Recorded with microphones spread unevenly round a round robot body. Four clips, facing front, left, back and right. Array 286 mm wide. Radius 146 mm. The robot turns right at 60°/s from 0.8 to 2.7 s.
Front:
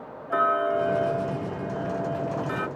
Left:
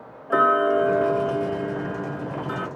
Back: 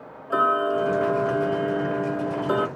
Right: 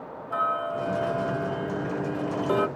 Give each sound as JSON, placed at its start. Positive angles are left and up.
{"t": 0.3, "sound": "ticking", "azimuth_deg": 115}